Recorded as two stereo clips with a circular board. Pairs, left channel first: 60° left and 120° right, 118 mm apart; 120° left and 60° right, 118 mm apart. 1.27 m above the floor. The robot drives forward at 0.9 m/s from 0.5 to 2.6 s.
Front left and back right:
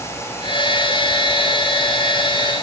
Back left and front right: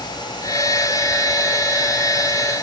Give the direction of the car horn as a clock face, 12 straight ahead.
No car horn in this recording.